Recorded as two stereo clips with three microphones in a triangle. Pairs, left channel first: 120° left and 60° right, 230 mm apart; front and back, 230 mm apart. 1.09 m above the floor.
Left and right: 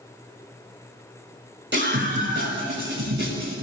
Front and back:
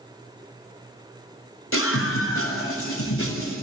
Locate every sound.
1.7 s a scream: 20° right, 7 m; by 3.5 s 25° right, 8.5 m